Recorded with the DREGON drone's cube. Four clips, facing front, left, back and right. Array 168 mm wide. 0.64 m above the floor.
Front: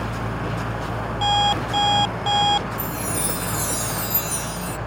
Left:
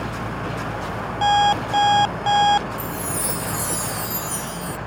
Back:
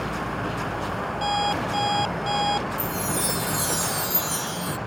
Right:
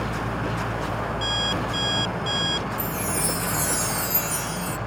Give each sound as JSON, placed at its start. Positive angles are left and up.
{"t": 1.2, "sound": "an alarm clock", "azimuth_deg": 70}
{"t": 2.8, "sound": "a chime", "azimuth_deg": -120}